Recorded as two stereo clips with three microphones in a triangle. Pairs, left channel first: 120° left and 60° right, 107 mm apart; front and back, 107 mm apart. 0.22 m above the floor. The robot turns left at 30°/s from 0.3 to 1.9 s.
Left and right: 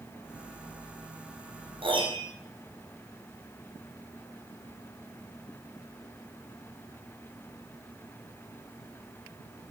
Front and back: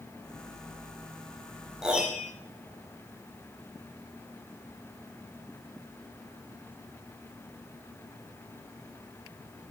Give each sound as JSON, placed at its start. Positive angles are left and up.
{"t": 1.8, "sound": "a piano", "azimuth_deg": -95, "distance_m": 3.0}